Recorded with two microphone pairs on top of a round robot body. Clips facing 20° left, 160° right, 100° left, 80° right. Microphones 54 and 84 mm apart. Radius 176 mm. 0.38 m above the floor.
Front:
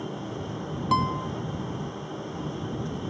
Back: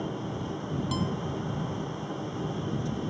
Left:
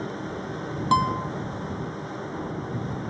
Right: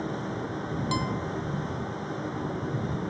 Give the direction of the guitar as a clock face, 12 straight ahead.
10 o'clock.